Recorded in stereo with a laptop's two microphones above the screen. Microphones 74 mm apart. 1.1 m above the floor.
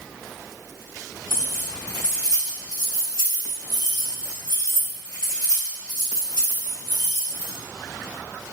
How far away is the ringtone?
I don't hear a ringtone.